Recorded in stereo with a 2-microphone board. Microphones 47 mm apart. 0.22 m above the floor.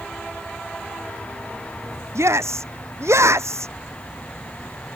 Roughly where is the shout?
Right.